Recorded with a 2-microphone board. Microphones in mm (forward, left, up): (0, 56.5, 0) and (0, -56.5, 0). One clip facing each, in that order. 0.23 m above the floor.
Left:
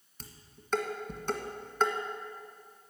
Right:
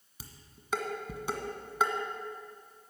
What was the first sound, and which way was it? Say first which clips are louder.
Dishes clattering: left 1 dB; 10° right (ahead or behind).